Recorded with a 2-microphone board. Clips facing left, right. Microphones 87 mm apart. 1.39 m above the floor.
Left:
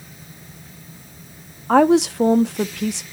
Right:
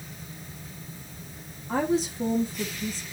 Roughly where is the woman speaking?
Left.